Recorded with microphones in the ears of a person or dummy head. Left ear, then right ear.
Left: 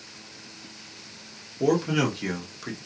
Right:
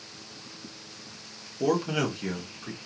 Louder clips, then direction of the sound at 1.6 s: Left 3 dB; 15° right (ahead or behind).